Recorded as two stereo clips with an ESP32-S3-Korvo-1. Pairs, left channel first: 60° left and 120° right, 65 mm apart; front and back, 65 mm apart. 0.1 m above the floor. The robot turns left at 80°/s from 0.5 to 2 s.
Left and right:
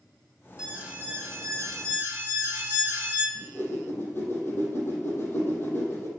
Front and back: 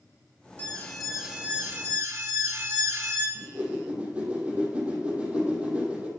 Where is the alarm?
45° right, 2 m; by 3.2 s 160° right, 2 m.